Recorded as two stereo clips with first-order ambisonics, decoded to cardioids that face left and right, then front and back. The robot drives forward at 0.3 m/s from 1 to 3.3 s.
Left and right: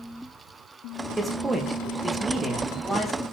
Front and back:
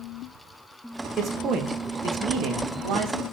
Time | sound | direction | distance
1.2 | a man speaking | 155° right | 0.5 m